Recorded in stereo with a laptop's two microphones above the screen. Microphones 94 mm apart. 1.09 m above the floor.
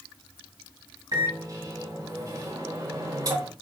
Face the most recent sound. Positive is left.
turn(degrees=-40)  # may be behind; listen again after turning